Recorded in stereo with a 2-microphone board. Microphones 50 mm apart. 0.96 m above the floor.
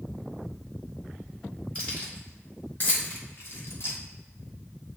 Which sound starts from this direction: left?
Keys jangling, at 1.8 s.